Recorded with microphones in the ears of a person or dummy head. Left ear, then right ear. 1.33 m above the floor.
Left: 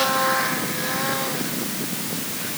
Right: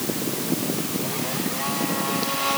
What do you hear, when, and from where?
Only background noise.